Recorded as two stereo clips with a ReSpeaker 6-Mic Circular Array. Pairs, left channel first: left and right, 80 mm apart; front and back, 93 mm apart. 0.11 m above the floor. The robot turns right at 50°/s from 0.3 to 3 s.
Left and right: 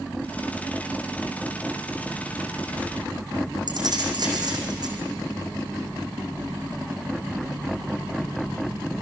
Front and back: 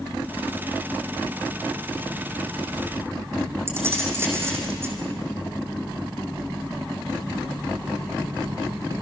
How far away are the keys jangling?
About 4.5 m.